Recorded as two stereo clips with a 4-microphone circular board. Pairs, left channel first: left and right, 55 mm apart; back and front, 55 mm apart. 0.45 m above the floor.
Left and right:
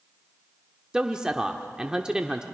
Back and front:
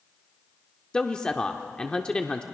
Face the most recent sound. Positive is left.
turn(degrees=-140)